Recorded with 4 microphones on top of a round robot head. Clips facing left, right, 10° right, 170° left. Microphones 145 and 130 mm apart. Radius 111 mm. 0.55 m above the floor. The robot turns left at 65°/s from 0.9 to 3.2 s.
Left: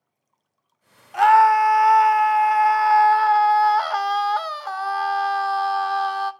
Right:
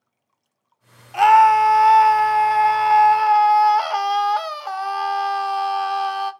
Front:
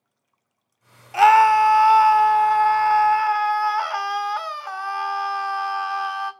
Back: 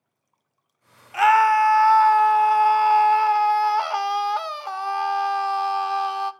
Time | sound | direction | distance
1.1 | a scream | 20° right | 0.9 m